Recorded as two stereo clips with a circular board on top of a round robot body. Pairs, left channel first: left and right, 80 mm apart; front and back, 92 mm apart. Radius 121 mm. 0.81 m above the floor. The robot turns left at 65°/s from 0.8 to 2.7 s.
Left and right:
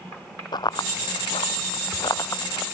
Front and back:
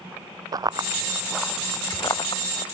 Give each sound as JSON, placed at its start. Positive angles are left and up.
{"t": 0.5, "sound": "running footsteps", "azimuth_deg": 130}